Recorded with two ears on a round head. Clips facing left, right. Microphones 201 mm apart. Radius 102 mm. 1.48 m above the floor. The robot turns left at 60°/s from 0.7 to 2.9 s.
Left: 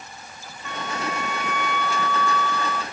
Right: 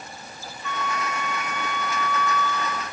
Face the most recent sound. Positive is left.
turn(degrees=40)